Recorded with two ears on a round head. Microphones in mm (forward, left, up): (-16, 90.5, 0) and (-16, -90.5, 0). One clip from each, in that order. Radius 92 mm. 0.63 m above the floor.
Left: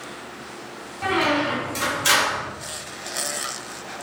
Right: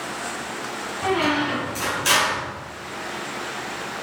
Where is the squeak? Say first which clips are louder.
Left 1 dB; 55° left (ahead or behind), 2 m.